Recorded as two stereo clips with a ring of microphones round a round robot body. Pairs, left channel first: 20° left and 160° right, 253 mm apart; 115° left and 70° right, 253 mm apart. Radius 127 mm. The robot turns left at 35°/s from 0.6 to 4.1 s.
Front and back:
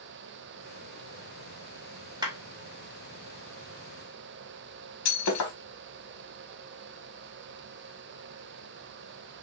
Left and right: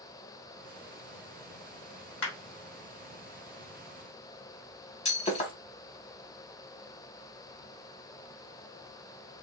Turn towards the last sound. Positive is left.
turn(degrees=45)